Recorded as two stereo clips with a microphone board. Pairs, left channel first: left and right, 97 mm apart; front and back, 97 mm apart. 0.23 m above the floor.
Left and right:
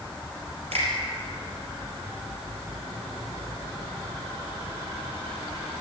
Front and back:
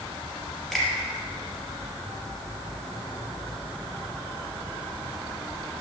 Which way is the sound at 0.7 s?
90° right.